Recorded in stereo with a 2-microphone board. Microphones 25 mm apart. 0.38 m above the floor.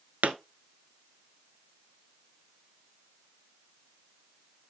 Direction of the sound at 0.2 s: 80° right.